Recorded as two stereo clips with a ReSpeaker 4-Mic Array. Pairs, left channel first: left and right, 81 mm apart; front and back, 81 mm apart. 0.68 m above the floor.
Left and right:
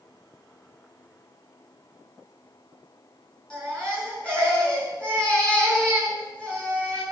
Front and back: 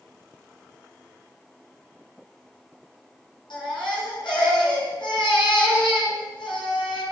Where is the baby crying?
15° left, 6 m.